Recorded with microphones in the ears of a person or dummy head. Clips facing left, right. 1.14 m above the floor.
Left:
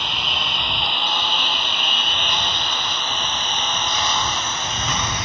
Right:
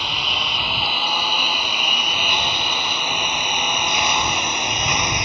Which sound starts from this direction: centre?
A lawn mower, at 0.0 s.